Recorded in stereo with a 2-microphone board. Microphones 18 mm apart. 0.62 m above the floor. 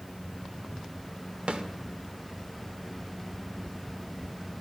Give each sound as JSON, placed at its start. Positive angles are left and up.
{"t": 1.5, "sound": "a snare drum", "side_deg": -70, "distance_m": 0.9}